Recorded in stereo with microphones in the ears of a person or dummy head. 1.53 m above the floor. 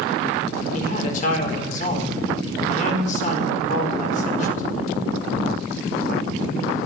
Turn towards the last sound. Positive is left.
turn(degrees=45)  # may be behind; listen again after turning